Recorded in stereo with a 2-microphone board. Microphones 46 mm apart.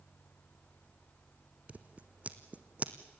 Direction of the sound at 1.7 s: 30° right (ahead or behind).